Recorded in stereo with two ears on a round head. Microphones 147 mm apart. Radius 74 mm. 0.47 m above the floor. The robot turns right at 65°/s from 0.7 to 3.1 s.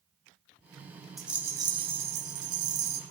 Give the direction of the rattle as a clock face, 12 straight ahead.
6 o'clock.